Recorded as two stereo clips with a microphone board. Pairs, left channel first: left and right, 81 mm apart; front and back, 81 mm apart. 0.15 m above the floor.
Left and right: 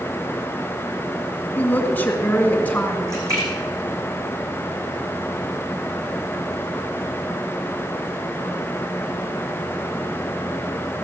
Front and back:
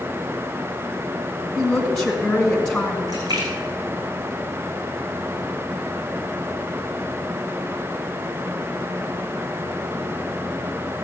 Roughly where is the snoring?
I don't hear snoring.